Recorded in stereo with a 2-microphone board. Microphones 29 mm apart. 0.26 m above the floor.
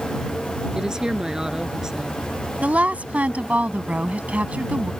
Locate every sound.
0.8 s a woman speaking: 20° right (ahead or behind)
2.6 s a woman speaking: 55° right (ahead or behind)